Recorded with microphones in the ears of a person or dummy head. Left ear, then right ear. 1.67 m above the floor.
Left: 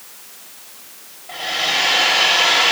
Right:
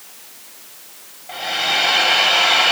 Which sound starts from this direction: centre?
A hair dryer, at 1.3 s.